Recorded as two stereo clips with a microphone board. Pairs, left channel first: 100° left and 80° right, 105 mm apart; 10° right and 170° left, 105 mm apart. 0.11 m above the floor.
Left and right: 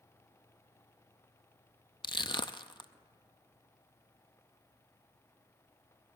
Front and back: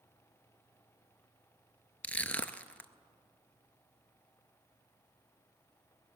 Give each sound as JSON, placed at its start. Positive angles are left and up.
{"t": 2.0, "sound": "crushing", "azimuth_deg": 65, "distance_m": 0.5}